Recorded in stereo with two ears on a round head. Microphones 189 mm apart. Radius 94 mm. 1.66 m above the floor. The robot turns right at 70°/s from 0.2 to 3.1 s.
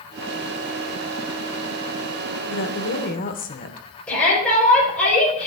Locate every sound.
2.5 s a woman speaking: 85° left, 0.9 m; by 3.9 s 130° left, 0.9 m
4.1 s a shout: 5° left (ahead or behind), 5 m